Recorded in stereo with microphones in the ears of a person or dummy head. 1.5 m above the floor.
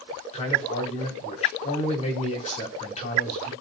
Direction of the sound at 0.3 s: 35° left (ahead or behind).